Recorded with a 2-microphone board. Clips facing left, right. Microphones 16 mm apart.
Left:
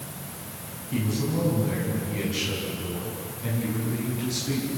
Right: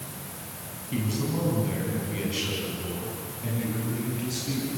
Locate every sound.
0.9 s a man speaking: 20° right (ahead or behind), 7 m; by 4.7 s centre (ahead or behind), 8.5 m